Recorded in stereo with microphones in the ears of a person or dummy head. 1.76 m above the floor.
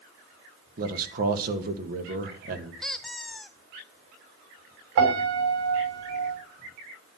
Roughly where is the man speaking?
Right.